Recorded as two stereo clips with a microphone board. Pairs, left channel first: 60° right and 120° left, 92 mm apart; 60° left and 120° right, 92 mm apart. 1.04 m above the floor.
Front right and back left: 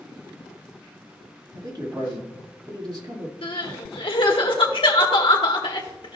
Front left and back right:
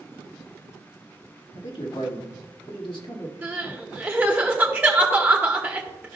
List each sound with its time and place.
1.6 s a man speaking: 80° left, 1.8 m
3.4 s crying: 50° right, 1.3 m